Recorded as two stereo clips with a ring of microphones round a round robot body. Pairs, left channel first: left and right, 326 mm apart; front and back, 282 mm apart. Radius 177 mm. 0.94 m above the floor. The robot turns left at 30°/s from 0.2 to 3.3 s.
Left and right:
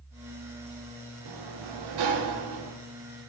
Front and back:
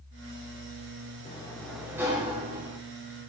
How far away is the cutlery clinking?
No cutlery clinking in this recording.